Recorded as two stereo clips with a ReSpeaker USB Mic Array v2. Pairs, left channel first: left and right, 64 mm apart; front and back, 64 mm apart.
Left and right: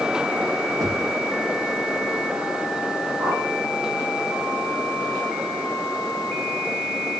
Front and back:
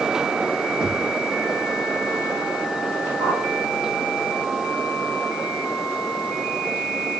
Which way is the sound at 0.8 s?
105° right.